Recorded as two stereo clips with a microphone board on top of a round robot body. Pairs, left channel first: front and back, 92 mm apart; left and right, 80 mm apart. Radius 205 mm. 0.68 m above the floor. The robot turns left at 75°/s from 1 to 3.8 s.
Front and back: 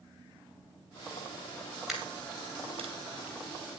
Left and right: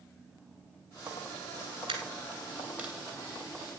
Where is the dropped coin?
90° right, 2.5 m; by 2.9 s 170° right, 2.5 m.